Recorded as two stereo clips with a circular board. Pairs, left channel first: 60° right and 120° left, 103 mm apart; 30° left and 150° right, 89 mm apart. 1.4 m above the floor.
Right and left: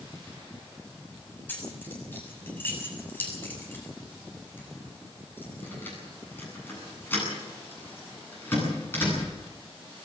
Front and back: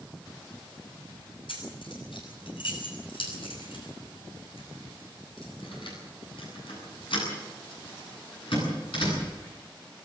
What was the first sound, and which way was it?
Keys jangling, 10° left.